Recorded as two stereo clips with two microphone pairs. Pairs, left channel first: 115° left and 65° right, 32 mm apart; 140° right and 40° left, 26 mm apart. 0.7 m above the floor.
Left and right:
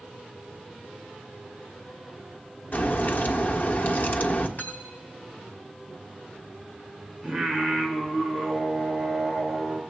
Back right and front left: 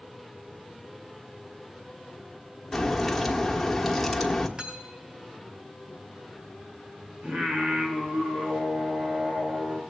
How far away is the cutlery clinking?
About 3 m.